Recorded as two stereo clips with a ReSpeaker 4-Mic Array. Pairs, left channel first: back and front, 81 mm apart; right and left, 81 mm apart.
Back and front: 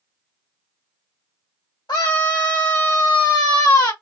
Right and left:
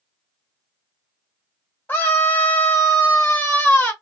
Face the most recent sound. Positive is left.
turn(degrees=-150)